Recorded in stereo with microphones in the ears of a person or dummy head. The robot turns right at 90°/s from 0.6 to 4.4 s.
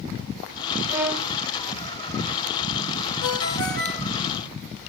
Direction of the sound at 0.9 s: 30° right.